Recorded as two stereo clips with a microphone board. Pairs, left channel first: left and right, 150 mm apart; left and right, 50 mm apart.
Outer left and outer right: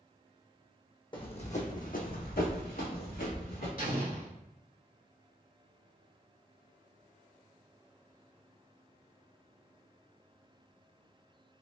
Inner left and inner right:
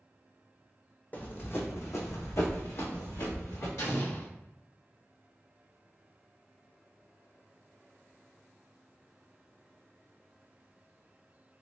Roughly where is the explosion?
Left.